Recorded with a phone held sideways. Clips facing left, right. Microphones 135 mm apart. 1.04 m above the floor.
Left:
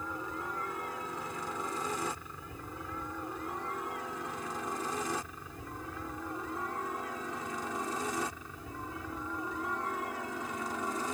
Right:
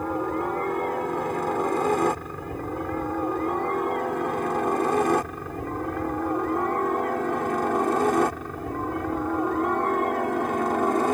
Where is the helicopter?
65° right (ahead or behind).